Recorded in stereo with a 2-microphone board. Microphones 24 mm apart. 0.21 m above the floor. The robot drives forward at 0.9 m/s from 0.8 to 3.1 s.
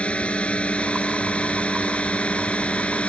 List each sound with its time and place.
0.0 s a drone: 55° left (ahead or behind)